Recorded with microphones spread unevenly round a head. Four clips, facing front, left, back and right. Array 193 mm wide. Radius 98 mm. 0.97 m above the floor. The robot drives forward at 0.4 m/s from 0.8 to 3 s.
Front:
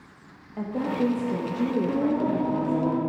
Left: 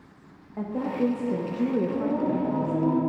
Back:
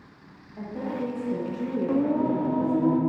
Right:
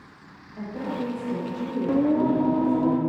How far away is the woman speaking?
About 1.2 m.